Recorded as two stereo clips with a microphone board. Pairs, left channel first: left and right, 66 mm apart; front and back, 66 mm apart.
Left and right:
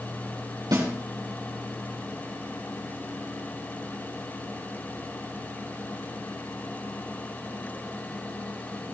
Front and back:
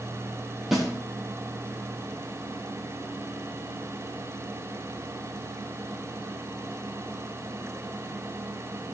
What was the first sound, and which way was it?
A snare drum, 90° right.